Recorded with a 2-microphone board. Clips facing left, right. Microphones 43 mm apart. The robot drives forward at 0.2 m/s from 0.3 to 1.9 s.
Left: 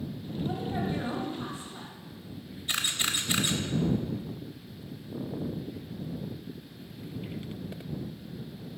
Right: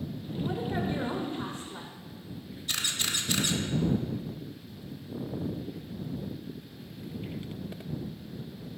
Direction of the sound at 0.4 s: 60° right (ahead or behind).